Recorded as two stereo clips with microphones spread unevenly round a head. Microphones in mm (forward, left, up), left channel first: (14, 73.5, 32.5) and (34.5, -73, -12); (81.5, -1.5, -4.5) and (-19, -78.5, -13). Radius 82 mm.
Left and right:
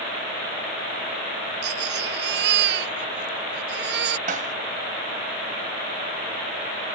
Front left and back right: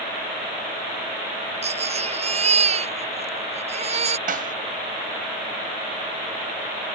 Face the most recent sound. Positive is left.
turn(degrees=-135)